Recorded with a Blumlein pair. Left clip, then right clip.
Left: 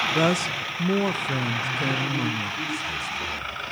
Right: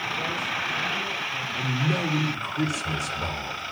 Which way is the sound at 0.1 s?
45° left.